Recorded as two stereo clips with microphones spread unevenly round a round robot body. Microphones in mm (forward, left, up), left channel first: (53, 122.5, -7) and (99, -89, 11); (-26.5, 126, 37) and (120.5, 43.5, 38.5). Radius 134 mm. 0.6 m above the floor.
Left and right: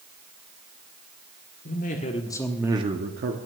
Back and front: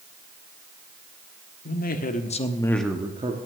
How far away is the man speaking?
About 1.6 m.